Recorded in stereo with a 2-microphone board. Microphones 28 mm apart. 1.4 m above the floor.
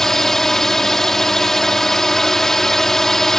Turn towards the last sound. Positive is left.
turn(degrees=15)  # may be behind; listen again after turning